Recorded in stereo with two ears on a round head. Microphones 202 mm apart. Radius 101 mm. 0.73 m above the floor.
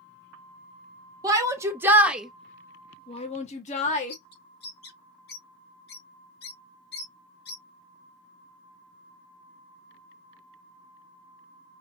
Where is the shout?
15° right (ahead or behind), 1.5 m; by 4.2 s 35° left (ahead or behind), 1.3 m.